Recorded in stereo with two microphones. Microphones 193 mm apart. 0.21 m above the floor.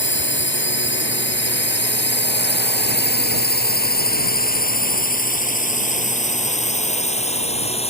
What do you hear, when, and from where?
0.0 s a drone: 70° left (ahead or behind); by 7.9 s 30° left (ahead or behind)